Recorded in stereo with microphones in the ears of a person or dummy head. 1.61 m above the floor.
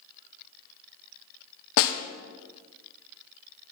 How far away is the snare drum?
About 0.8 m.